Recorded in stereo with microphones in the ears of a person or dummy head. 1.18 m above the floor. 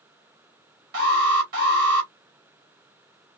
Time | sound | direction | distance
0.9 | an alarm | 55° right (ahead or behind) | 1.8 m